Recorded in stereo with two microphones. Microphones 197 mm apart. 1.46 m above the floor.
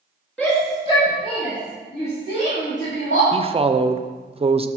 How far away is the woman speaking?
About 0.6 m.